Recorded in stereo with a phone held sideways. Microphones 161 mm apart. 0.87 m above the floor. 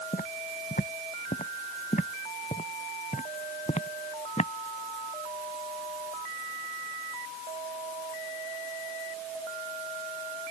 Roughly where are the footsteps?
Left.